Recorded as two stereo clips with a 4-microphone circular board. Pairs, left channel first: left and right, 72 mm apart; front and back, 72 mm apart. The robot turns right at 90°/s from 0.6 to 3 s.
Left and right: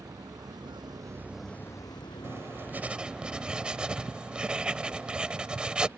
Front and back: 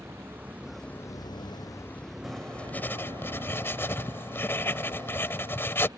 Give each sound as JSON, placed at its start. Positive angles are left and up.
{"t": 0.0, "sound": "a vehicle", "azimuth_deg": -125}
{"t": 2.2, "sound": "writing", "azimuth_deg": -90}